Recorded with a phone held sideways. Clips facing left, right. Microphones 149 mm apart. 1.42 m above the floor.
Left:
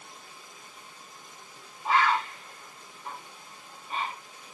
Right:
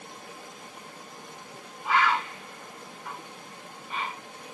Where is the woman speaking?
No woman speaking in this recording.